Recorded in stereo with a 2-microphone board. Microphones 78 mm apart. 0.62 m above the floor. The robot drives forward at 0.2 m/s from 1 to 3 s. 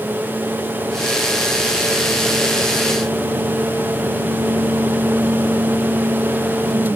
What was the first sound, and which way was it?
Only background noise.